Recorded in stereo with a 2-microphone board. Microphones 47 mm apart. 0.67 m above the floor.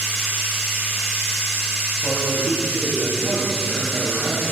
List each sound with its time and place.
0.0 s running water: 5° right (ahead or behind), 5.5 m
2.0 s a man speaking: 40° left (ahead or behind), 5 m